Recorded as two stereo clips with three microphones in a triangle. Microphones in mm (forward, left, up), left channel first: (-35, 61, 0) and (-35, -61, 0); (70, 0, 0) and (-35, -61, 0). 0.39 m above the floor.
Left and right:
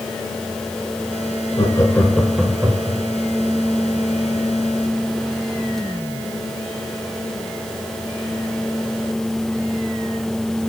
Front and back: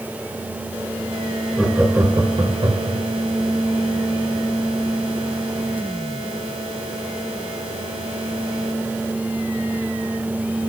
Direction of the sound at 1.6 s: 125° left.